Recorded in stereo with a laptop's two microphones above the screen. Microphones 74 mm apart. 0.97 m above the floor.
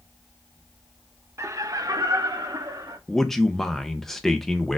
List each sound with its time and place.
1.4 s laughter: 40° right (ahead or behind), 0.5 m; by 3.0 s 70° right (ahead or behind), 1.6 m
3.1 s a man speaking: 5° left (ahead or behind), 0.7 m